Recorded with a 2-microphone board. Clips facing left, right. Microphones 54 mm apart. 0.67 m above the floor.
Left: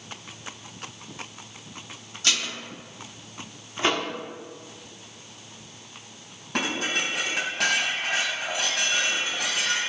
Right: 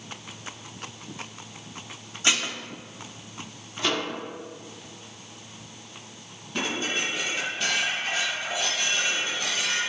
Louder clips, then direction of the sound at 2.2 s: Right 2 dB; 25° right (ahead or behind).